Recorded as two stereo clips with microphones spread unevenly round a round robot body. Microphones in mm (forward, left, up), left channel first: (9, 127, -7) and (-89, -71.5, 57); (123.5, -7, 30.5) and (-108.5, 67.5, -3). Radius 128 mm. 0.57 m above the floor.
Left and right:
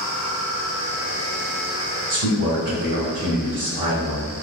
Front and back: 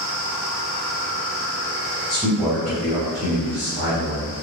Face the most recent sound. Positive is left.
turn(degrees=-75)